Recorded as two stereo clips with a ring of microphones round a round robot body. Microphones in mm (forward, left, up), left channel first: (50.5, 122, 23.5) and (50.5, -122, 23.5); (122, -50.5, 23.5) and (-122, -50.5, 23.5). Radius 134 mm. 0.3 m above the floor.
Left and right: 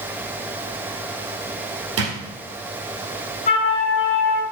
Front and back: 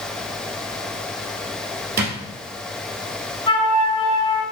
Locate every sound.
2.0 s a drawer: 130° right, 1.6 m
3.5 s a flute: 50° left, 1.4 m